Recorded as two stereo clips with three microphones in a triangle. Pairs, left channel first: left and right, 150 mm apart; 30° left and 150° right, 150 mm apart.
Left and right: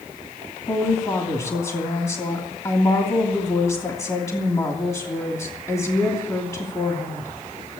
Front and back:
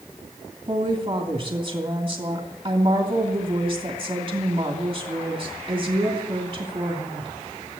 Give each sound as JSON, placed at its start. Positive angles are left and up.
{"t": 0.7, "sound": "a woman speaking", "azimuth_deg": 150, "distance_m": 2.5}